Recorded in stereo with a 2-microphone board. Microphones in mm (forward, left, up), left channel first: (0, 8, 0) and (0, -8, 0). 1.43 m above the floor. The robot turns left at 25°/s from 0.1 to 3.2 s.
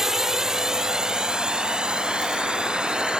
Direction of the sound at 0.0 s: 35° right (ahead or behind).